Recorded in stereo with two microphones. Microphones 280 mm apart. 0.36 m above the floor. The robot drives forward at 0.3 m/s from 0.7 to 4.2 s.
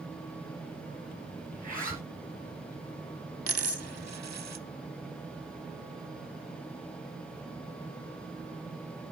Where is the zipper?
30° right (ahead or behind), 4 m.